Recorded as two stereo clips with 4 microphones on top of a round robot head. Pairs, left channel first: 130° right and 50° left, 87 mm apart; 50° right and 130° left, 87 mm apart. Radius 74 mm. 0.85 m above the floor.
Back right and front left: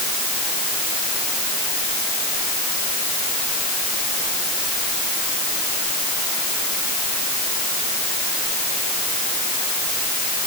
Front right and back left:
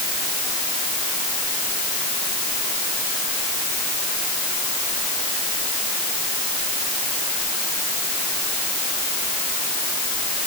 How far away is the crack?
No crack in this recording.